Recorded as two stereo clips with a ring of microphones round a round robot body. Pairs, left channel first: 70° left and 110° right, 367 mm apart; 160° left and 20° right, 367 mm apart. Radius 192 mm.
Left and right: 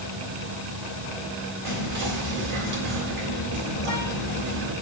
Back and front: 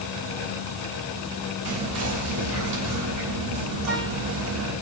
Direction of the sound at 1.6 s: 50° right.